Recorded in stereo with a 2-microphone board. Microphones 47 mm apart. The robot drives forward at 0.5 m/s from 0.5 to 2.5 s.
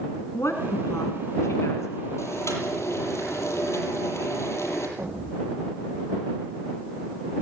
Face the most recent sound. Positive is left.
turn(degrees=-45)  # may be behind; listen again after turning